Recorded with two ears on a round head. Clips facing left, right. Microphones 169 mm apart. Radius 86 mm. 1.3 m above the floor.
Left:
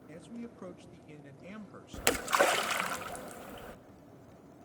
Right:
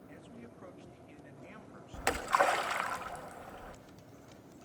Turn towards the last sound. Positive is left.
turn(degrees=35)  # may be behind; listen again after turning